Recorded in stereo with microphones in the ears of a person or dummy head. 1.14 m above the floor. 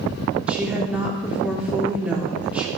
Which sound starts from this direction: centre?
A woman speaking, at 0.5 s.